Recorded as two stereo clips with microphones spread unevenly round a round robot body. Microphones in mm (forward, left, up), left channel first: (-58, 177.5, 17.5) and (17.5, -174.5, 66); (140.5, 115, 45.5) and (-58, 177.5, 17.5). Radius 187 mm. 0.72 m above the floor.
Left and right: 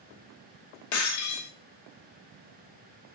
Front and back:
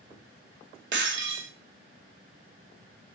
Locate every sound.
0.9 s breaking glass: 140° left, 2.0 m